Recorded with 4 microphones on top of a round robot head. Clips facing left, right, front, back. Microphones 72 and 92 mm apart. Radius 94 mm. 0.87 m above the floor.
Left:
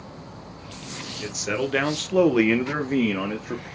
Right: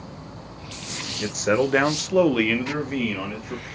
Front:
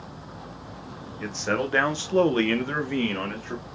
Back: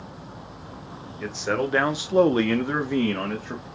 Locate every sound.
1.2 s a man speaking: 95° right, 0.8 m; by 3.6 s 105° left, 1.0 m